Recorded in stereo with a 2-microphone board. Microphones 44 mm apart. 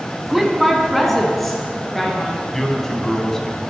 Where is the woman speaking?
5° right (ahead or behind), 1.0 m; by 2.4 s 10° left (ahead or behind), 3 m.